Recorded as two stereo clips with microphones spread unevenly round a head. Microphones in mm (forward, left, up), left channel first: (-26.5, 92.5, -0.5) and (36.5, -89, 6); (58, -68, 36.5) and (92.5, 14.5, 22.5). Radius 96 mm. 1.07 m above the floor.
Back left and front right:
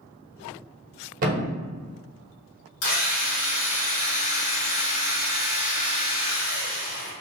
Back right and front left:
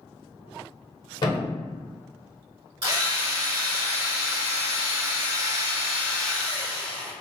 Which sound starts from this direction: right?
A thud, at 1.2 s.